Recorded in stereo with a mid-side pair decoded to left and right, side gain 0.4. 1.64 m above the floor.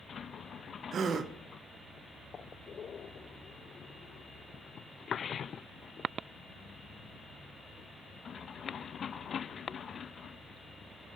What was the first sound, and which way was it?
A gasp, 60° right.